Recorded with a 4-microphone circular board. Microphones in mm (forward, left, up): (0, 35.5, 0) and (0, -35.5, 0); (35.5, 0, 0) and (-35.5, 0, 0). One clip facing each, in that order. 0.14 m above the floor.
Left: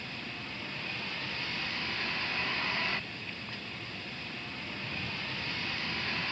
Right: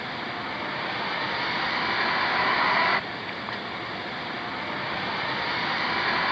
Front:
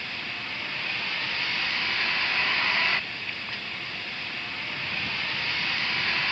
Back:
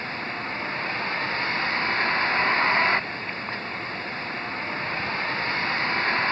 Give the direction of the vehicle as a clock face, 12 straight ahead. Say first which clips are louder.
Right 11 dB, back 5 dB; 4 o'clock.